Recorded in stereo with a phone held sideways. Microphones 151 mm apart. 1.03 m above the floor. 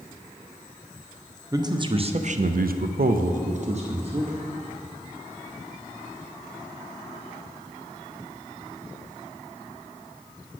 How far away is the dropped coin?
I don't hear a dropped coin.